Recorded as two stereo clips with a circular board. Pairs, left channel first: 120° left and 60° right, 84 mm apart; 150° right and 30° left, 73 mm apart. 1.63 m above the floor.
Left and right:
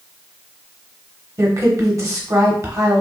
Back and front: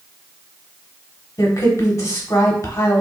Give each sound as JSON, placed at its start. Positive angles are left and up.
{"t": 1.4, "sound": "a woman speaking", "azimuth_deg": -105, "distance_m": 1.0}